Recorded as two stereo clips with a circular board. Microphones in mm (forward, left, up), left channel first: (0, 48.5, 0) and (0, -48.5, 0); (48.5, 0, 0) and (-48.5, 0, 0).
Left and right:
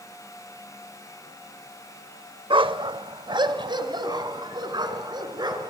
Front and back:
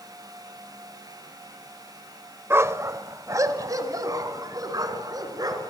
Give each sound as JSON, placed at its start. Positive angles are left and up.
{"t": 2.5, "sound": "a dog barking", "azimuth_deg": -115, "distance_m": 0.8}